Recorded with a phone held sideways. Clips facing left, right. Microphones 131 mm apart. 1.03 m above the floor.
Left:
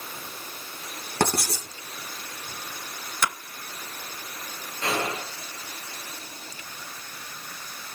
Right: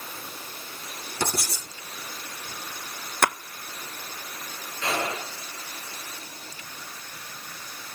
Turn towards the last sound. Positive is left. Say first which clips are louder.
# left 1 dB
turn(degrees=35)  # may be behind; listen again after turning